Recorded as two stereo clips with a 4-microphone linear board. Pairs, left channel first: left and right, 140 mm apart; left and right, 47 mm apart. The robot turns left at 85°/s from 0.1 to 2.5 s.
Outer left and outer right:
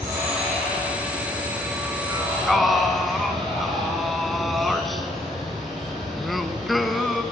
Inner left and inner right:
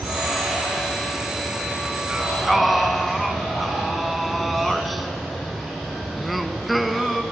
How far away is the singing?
About 0.9 m.